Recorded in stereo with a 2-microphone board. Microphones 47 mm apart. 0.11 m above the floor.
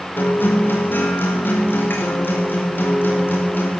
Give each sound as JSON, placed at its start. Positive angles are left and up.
{"t": 0.2, "sound": "a guitar", "side_deg": 50, "distance_m": 6.0}